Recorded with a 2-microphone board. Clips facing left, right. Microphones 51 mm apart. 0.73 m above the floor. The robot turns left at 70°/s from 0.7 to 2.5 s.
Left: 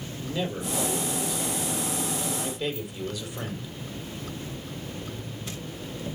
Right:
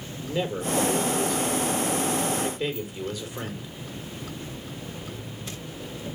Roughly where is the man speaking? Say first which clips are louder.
Right 3 dB; ahead.